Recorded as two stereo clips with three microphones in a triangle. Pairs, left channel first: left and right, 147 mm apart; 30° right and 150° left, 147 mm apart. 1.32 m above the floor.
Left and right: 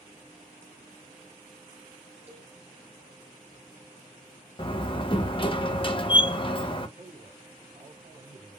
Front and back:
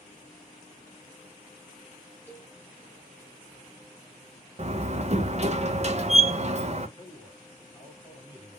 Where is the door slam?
130° left, 0.5 m.